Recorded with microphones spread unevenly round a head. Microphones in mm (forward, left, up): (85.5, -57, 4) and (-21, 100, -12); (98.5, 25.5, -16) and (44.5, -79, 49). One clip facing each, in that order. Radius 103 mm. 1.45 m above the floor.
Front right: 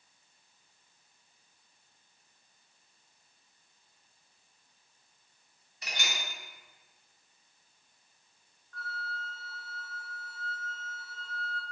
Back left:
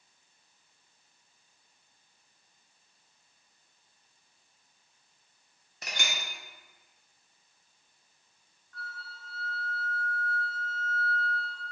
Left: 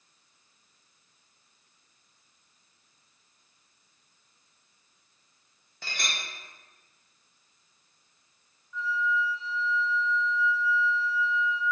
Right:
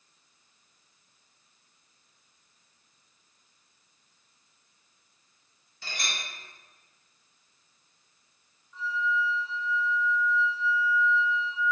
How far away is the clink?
About 0.6 m.